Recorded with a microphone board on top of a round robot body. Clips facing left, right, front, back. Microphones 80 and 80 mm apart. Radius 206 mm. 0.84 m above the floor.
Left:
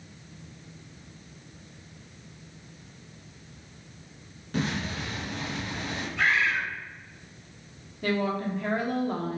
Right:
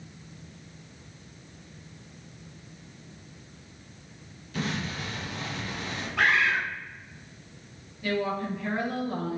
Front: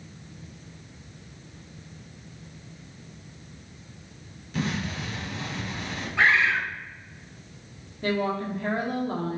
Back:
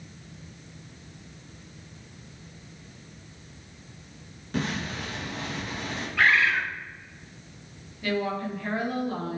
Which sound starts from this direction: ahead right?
A bird, at 6.2 s.